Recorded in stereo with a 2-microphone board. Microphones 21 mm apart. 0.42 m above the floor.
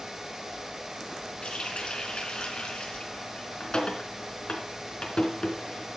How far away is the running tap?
About 3.5 m.